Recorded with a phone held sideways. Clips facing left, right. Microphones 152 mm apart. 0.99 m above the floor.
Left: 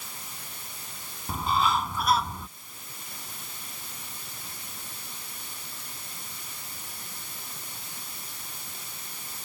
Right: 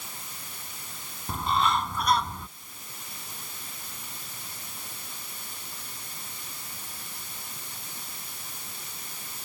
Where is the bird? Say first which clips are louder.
Even; centre (ahead or behind).